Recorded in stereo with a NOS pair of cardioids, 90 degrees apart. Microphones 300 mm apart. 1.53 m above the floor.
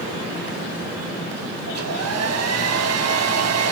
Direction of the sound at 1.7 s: 60° right.